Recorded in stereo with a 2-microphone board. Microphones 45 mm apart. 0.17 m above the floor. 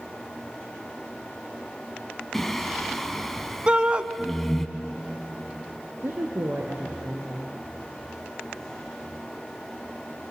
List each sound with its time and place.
2.3 s singing: 5° left (ahead or behind), 1.3 m
3.7 s a shout: 25° right (ahead or behind), 1.1 m
6.0 s a woman speaking: 60° right (ahead or behind), 2.5 m